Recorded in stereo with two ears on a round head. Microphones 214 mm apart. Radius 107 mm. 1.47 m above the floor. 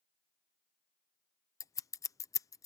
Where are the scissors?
15° left (ahead or behind).